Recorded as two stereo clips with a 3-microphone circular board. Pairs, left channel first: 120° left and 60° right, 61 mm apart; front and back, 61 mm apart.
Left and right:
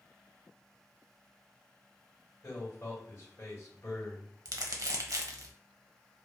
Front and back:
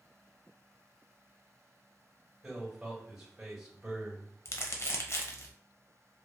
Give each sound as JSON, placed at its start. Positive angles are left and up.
{"t": 2.4, "sound": "a man speaking", "azimuth_deg": 110, "distance_m": 1.7}
{"t": 4.5, "sound": "crumpling", "azimuth_deg": -40, "distance_m": 0.5}